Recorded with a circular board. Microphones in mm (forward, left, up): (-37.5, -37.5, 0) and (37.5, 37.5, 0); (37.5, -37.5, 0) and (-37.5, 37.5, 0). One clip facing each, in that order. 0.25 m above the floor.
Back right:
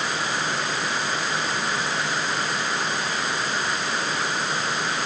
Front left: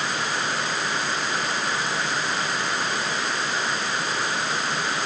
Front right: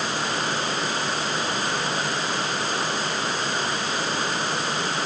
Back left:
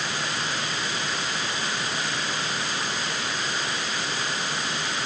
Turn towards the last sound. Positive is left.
No sound to turn to.